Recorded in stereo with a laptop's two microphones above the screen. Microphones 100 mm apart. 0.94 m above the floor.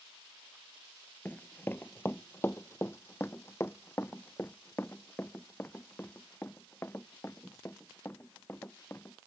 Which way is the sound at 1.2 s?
20° left (ahead or behind).